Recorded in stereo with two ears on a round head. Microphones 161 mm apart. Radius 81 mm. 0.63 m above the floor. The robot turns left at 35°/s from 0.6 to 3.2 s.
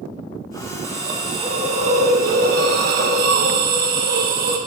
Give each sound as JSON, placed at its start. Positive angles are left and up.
{"t": 0.8, "sound": "a hiss", "azimuth_deg": -15, "distance_m": 0.9}